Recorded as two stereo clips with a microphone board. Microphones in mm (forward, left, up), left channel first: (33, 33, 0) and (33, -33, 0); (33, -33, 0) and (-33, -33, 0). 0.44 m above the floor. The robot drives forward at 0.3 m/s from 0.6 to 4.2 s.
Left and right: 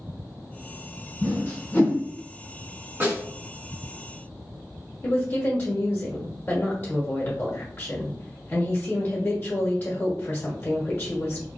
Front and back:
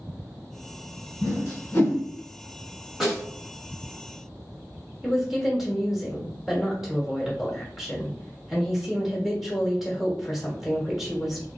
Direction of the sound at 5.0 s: 95° left.